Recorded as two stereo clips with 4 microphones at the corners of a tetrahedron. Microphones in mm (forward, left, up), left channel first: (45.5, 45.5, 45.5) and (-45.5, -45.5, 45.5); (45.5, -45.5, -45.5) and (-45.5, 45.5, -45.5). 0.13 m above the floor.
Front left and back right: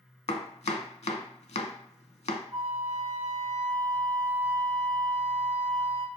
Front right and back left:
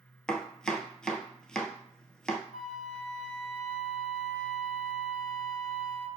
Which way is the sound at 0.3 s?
35° left.